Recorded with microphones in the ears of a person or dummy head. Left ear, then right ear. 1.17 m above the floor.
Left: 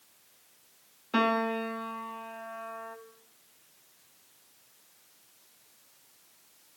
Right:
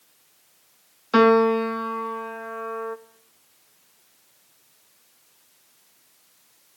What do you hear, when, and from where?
1.1 s a piano: 50° right (ahead or behind), 0.6 m